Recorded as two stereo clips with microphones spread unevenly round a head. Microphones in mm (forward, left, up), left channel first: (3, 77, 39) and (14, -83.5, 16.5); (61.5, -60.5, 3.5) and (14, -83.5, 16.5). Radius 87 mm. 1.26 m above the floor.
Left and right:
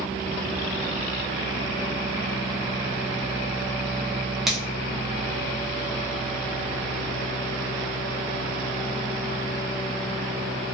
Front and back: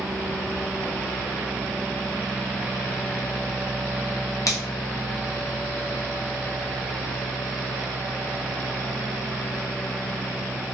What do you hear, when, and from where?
4.5 s a finger snap: 5° left, 0.7 m